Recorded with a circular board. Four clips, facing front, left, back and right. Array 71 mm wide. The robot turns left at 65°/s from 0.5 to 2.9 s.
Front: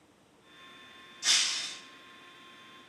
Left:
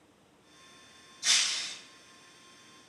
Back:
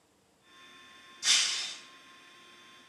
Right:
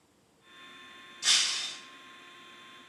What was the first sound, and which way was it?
Breaking glass, 70° right.